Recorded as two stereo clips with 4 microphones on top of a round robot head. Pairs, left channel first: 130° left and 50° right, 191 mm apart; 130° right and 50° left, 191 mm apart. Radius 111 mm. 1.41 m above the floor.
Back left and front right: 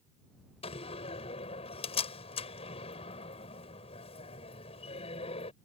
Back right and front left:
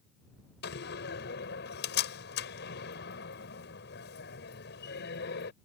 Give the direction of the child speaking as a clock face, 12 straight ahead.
No child speaking in this recording.